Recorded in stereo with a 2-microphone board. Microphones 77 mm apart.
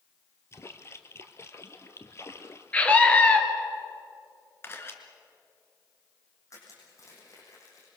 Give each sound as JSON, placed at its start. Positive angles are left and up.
{"t": 0.5, "sound": "a splash", "side_deg": 35, "distance_m": 1.4}
{"t": 2.7, "sound": "a scream", "side_deg": 20, "distance_m": 3.5}
{"t": 4.6, "sound": "a camera shutter", "side_deg": 30, "distance_m": 2.0}
{"t": 6.5, "sound": "crushing", "side_deg": 45, "distance_m": 7.0}